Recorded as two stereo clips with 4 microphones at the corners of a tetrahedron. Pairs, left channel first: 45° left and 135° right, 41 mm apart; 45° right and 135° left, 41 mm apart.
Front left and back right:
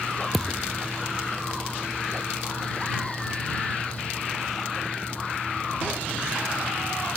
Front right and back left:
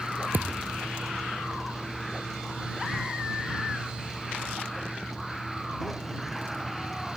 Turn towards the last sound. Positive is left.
turn(degrees=130)